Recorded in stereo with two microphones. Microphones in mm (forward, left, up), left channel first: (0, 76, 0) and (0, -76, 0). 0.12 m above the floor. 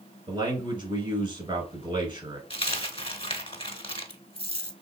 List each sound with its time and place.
0.3 s a man speaking: 30° right (ahead or behind), 1.5 m
2.5 s a dropped coin: 40° left (ahead or behind), 0.7 m